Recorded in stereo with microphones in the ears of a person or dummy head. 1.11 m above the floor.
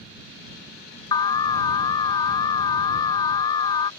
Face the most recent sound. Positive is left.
turn(degrees=15)  # may be behind; listen again after turning